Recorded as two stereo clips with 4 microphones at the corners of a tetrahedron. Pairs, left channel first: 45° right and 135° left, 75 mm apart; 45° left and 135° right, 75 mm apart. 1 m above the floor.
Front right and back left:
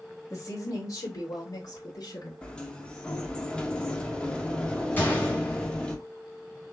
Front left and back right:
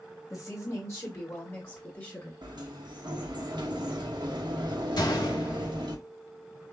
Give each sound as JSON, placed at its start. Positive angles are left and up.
{"t": 0.3, "sound": "a woman speaking", "azimuth_deg": 0, "distance_m": 1.9}
{"t": 2.4, "sound": "a sliding door", "azimuth_deg": -125, "distance_m": 0.9}
{"t": 5.0, "sound": "a gunshot", "azimuth_deg": 20, "distance_m": 1.4}